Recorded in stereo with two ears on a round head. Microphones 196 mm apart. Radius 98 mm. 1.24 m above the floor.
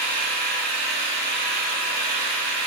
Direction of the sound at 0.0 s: 45° right (ahead or behind).